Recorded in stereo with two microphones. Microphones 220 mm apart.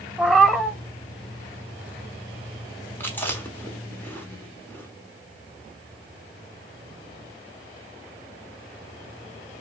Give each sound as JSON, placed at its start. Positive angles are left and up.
{"t": 0.2, "sound": "a cat meowing", "side_deg": 0, "distance_m": 0.5}
{"t": 3.0, "sound": "chewing", "side_deg": 10, "distance_m": 1.3}